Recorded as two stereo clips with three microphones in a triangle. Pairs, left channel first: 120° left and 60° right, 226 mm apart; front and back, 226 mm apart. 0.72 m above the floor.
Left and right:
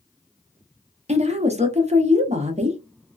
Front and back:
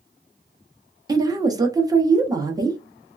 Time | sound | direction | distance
1.1 | a woman speaking | 115° right | 0.8 m